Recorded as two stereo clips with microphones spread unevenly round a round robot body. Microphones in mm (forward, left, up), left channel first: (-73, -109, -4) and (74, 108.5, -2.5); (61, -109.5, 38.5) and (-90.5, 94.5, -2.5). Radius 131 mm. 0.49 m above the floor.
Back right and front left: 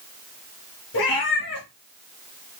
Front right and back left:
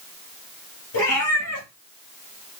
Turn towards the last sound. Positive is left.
turn(degrees=-80)